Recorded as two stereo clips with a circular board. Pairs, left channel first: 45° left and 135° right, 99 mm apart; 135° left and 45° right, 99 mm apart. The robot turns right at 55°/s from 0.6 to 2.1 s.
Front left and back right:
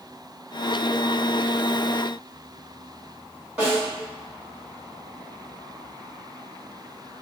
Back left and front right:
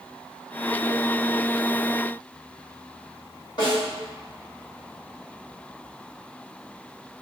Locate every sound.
3.6 s a snare drum: 150° left, 1.6 m